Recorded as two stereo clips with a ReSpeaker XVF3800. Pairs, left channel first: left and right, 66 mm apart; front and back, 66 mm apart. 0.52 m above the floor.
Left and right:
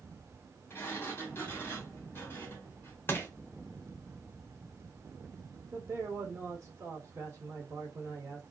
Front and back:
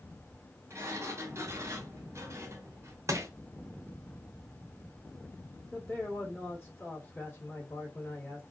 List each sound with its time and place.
0.7 s a sliding door: 140° left, 1.0 m
3.1 s crushing: 145° left, 0.7 m
5.7 s a man speaking: 55° right, 1.4 m